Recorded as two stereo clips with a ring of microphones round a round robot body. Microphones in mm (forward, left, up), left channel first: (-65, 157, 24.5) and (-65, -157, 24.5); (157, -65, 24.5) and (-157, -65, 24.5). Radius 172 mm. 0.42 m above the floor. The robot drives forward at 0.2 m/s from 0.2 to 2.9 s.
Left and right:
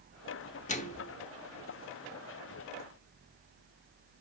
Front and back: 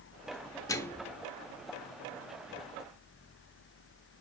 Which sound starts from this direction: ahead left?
A microwave, at 0.7 s.